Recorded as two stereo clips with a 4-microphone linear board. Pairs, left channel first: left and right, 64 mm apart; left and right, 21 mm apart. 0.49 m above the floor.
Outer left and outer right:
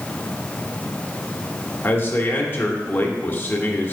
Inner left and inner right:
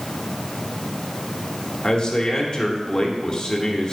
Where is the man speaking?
40° left (ahead or behind), 1.1 m.